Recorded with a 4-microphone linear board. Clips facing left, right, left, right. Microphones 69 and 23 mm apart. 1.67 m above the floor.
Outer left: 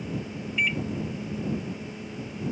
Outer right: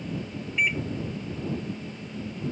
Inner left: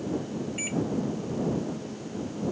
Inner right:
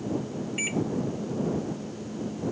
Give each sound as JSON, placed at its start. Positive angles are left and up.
{"t": 0.6, "sound": "a microwave", "side_deg": -25}